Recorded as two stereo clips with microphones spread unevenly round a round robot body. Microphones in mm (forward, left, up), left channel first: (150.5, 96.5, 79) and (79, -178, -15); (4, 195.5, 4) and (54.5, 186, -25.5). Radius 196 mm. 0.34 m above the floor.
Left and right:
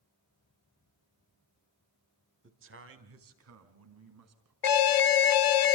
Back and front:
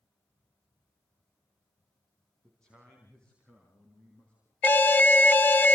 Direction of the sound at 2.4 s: 85° right.